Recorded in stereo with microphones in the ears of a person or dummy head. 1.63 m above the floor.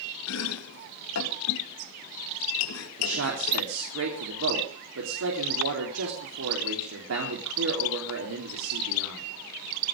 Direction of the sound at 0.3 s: 80° left.